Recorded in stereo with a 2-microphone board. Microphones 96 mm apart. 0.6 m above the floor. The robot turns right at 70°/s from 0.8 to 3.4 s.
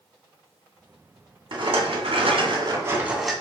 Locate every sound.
1.5 s a rattle: 125° right, 2 m; by 3.3 s 5° left, 2 m